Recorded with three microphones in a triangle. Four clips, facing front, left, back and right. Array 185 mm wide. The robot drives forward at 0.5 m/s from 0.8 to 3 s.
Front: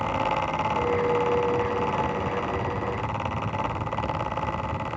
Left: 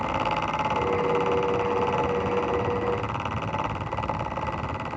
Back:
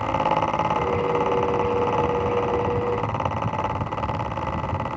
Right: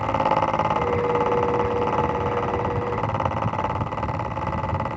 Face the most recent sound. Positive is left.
No sound to turn to.